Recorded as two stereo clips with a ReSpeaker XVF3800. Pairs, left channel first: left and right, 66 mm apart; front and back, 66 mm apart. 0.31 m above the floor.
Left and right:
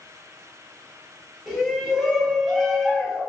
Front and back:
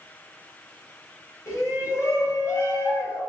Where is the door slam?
I don't hear a door slam.